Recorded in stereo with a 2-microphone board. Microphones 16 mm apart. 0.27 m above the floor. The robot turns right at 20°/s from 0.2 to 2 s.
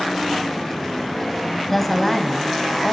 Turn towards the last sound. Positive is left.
turn(degrees=5)  # may be behind; listen again after turning